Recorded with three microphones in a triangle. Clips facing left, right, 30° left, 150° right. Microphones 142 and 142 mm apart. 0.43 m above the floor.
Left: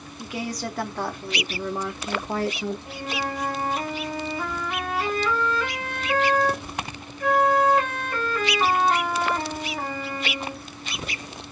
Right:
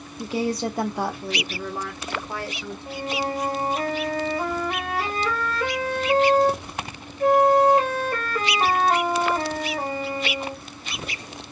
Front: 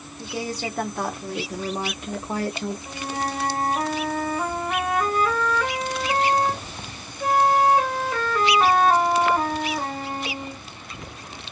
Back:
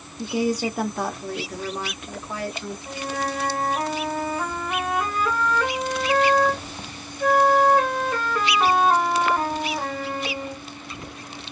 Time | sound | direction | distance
0.2 | a woman speaking | 95° right | 0.9 m
2.9 | a flute | 50° right | 1.8 m